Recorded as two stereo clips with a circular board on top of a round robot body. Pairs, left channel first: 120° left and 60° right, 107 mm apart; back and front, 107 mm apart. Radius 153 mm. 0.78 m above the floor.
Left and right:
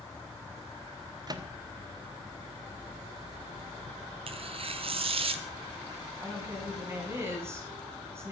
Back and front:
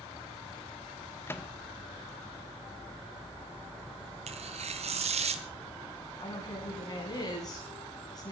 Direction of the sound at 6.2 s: 125° right.